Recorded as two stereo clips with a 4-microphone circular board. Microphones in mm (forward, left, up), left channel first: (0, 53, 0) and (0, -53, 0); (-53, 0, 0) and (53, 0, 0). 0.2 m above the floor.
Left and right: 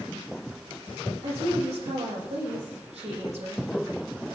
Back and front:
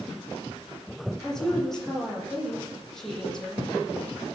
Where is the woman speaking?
95° right, 7.5 m.